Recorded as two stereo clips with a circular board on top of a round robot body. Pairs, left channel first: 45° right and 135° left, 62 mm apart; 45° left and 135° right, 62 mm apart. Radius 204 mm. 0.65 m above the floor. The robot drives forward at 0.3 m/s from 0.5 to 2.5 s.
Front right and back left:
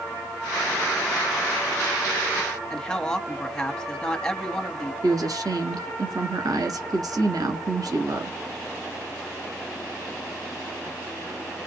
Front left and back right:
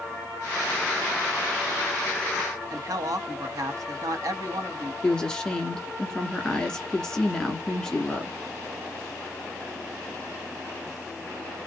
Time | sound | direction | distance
2.7 | a man speaking | 125° right | 1.3 m
5.0 | a woman speaking | 125° left | 1.5 m